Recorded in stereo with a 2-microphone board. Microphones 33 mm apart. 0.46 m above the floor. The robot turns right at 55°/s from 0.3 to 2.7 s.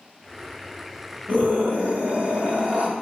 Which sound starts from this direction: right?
A scream, at 1.3 s.